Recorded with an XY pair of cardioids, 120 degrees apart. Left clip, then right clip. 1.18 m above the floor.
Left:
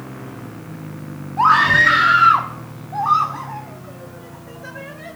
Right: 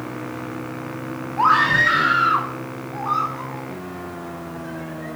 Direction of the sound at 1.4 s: 15° left.